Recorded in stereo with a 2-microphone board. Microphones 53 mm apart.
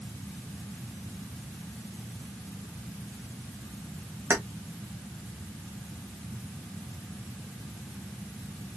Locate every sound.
4.3 s keys jangling: 45° right (ahead or behind), 1.2 m